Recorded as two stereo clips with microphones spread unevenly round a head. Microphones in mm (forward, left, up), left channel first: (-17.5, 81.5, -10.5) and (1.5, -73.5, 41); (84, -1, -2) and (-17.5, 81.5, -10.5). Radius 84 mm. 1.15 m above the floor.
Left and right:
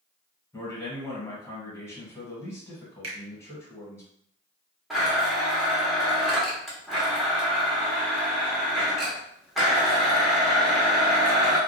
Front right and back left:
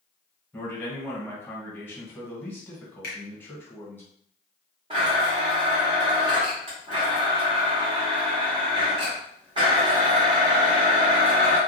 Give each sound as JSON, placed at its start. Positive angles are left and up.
{"t": 0.5, "sound": "a man speaking", "azimuth_deg": 35, "distance_m": 1.2}
{"t": 3.0, "sound": "a finger snap", "azimuth_deg": -75, "distance_m": 0.8}
{"t": 4.9, "sound": "a blender", "azimuth_deg": -160, "distance_m": 0.8}